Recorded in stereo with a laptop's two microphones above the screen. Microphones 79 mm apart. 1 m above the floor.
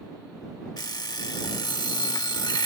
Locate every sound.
0.8 s an alarm clock: 60° left (ahead or behind)